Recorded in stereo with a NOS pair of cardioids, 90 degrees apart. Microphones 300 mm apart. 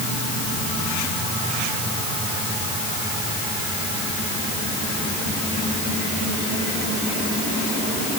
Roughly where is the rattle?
I don't hear a rattle.